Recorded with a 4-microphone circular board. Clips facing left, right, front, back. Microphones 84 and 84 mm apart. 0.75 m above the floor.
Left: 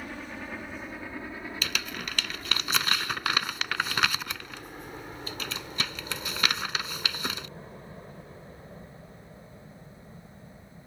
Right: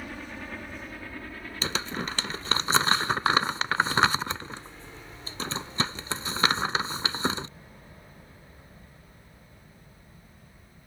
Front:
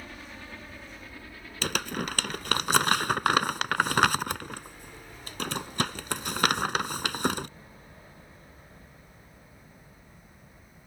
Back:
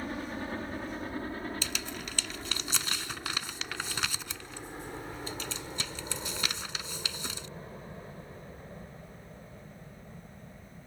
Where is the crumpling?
30° right.